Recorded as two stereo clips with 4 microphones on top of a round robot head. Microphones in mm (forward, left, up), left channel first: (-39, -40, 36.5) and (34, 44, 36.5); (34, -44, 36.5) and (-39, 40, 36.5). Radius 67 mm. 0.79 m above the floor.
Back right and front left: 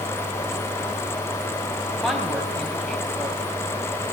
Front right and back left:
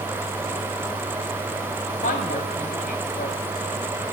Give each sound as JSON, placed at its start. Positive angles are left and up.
{"t": 2.0, "sound": "a woman speaking", "azimuth_deg": -40, "distance_m": 4.0}